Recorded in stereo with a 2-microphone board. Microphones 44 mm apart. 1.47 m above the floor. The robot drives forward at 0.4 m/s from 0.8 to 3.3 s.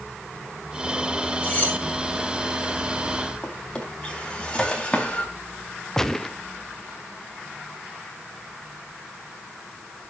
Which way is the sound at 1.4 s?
30° left (ahead or behind).